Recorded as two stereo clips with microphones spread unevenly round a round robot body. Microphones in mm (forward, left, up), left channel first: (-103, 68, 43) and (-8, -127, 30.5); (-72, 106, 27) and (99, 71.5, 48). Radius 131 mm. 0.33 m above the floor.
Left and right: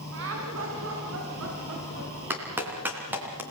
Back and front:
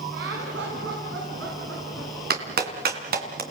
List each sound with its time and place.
0.1 s laughter: 40° right, 4.5 m; by 2.1 s 45° right, 6.5 m
2.3 s a clap: 20° left, 3 m